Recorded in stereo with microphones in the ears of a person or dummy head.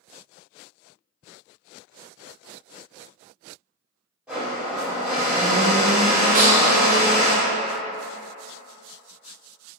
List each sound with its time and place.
4.3 s a blender: 5° right (ahead or behind), 1.6 m
6.3 s a snare drum: 45° right (ahead or behind), 0.7 m